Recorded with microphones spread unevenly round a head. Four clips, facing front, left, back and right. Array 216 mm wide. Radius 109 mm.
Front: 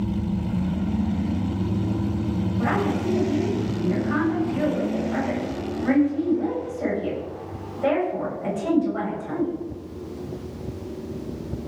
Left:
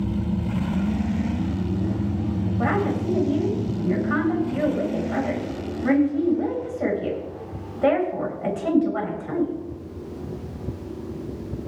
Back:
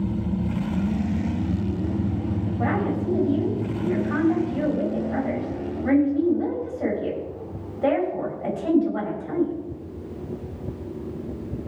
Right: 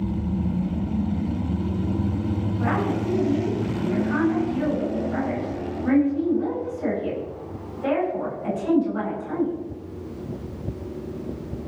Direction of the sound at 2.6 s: 80° left.